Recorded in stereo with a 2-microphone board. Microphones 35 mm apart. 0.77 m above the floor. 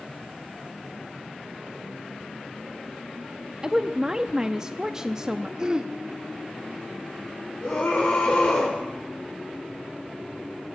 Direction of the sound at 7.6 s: 55° left (ahead or behind).